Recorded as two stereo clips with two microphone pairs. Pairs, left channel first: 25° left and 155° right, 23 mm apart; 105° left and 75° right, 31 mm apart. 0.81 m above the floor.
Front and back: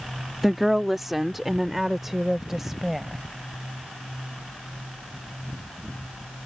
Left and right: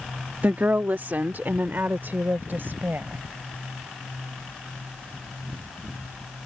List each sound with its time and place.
0.4 s a woman speaking: 75° right; by 3.2 s 80° right